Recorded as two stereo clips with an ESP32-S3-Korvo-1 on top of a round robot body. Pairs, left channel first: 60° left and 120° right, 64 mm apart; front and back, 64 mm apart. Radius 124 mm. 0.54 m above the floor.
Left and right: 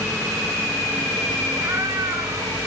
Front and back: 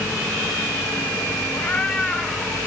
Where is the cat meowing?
60° right, 1.1 m; by 2.6 s 95° right, 1.7 m.